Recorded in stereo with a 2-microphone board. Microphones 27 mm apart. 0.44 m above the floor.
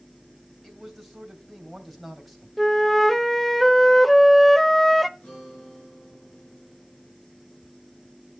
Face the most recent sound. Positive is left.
turn(degrees=60)  # may be behind; listen again after turning